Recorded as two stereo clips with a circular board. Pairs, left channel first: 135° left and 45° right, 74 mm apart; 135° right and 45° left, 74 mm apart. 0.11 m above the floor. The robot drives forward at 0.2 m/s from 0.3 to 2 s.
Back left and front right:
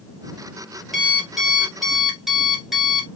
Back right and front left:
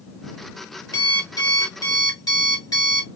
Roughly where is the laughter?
No laughter in this recording.